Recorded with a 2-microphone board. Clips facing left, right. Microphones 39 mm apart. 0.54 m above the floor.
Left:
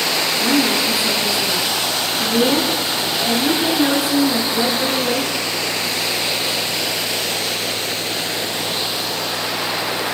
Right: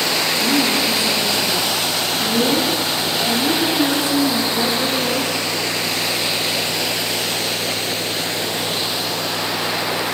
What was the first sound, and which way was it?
A woman speaking, 15° left (ahead or behind).